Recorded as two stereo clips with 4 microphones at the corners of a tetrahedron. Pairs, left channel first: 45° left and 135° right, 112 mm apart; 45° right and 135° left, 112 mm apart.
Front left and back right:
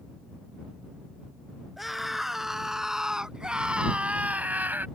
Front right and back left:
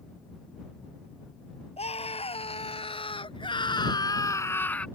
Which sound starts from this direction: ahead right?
A scream, at 1.8 s.